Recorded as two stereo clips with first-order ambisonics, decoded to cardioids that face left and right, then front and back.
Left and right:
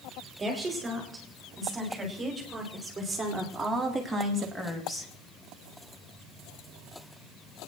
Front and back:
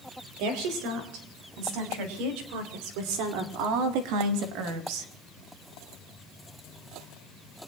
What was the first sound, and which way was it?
A woman speaking, 165° right.